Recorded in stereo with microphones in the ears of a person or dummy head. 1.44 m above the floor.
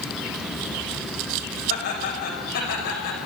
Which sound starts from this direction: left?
Laughter, at 1.7 s.